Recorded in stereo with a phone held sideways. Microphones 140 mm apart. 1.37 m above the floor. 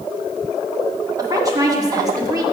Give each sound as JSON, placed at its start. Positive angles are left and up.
{"t": 1.2, "sound": "a woman speaking", "side_deg": -25, "distance_m": 1.2}